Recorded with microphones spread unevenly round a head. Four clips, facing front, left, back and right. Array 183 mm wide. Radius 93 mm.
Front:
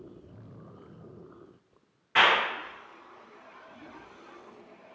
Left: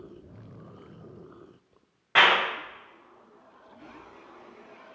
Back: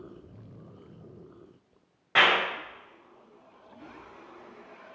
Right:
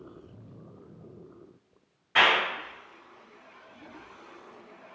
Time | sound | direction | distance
2.1 | a clap | 120° left | 1.4 m